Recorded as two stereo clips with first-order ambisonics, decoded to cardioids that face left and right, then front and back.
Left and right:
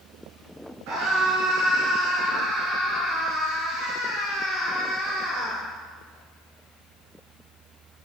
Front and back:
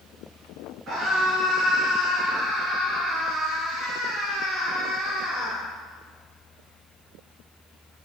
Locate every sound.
0.9 s a scream: 115° right, 9 m; by 5.6 s 120° right, 11.5 m